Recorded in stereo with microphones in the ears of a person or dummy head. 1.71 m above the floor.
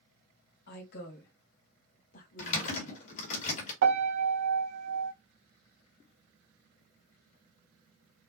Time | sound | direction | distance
0.7 | a woman speaking | 65° left (ahead or behind) | 2 m
2.4 | typing on a keyboard | 45° left (ahead or behind) | 2.5 m
3.8 | a piano | 70° right (ahead or behind) | 1.0 m